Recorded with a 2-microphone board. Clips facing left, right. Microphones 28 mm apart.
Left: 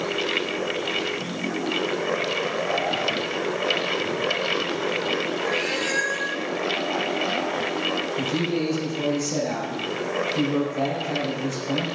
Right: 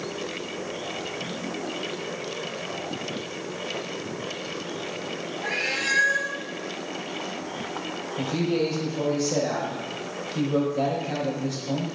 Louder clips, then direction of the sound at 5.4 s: Left 2 dB; 40° right (ahead or behind).